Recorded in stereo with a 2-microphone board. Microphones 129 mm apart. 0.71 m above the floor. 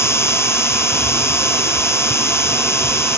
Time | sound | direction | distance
0.0 | an insect | 20° left (ahead or behind) | ?